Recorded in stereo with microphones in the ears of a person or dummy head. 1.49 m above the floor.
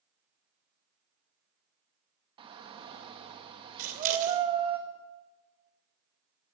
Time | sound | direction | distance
2.4 | a shout | 35° right (ahead or behind) | 1.6 m
3.8 | scissors | 45° right (ahead or behind) | 2.5 m